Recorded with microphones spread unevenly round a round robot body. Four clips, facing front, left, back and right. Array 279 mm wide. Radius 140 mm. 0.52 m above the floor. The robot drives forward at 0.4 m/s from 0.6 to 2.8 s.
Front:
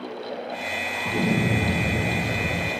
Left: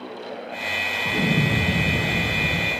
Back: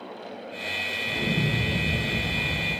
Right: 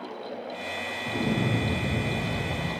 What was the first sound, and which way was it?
An explosion, 50° left.